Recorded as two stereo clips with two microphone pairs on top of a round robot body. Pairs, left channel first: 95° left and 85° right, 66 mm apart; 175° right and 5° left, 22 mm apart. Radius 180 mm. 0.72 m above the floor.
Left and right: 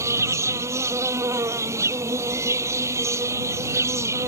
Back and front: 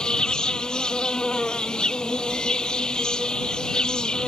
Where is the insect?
125° right.